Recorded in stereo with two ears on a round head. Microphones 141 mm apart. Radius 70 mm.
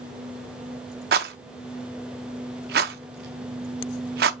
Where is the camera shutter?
No camera shutter in this recording.